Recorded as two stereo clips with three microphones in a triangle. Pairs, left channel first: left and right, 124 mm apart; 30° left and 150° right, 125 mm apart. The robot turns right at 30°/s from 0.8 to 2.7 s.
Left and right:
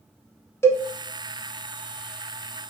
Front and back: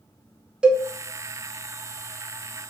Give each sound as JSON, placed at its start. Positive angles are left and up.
{"t": 0.6, "sound": "a cowbell", "azimuth_deg": 135, "distance_m": 0.6}